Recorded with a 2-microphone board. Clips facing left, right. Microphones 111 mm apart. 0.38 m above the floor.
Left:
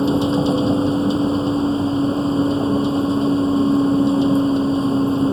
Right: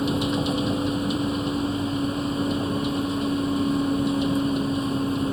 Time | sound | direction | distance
0.0 | a vehicle | 30° left (ahead or behind) | ?